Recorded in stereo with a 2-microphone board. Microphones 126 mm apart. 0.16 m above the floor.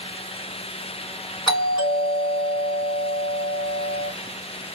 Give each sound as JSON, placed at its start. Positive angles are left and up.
{"t": 1.5, "sound": "a doorbell", "side_deg": 35, "distance_m": 1.7}